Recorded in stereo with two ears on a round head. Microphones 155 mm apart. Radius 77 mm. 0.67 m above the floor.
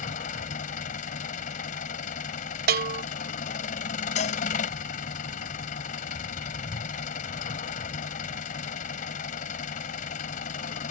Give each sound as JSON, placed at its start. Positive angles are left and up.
{"t": 0.0, "sound": "an engine running", "side_deg": 50}
{"t": 2.7, "sound": "a bell", "side_deg": -55}
{"t": 4.2, "sound": "a cowbell", "side_deg": 40}